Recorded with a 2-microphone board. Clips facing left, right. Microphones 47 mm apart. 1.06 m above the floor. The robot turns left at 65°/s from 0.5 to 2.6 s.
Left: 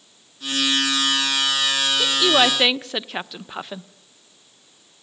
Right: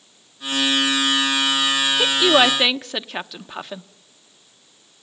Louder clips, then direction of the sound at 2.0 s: Right 2 dB; 35° right (ahead or behind).